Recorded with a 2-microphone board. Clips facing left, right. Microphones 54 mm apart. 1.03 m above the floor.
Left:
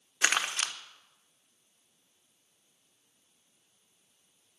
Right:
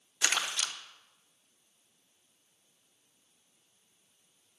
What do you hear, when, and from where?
0.2 s crumpling: 40° left (ahead or behind), 1.0 m